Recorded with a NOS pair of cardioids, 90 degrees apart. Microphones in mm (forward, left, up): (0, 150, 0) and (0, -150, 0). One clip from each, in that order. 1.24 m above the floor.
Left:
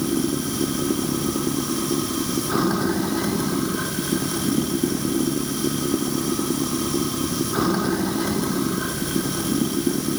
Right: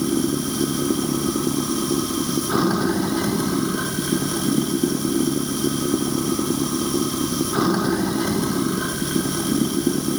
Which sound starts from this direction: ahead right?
Running water, at 0.0 s.